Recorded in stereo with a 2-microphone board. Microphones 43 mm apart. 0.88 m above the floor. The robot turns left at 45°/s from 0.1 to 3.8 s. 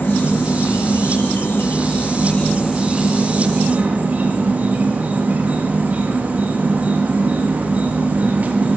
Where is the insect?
125° left, 0.8 m; by 8.8 s 40° right, 0.8 m.